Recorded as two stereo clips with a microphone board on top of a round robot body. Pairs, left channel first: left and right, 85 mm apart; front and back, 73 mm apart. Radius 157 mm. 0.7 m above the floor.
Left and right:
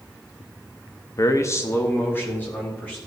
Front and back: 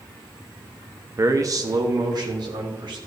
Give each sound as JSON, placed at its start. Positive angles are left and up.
{"t": 1.2, "sound": "a man speaking", "azimuth_deg": 135, "distance_m": 1.0}